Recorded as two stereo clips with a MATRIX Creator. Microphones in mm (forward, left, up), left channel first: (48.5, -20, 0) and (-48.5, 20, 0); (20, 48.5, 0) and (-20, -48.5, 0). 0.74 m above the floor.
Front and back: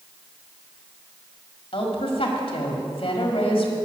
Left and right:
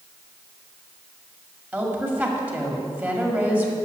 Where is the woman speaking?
40° right, 1.7 m.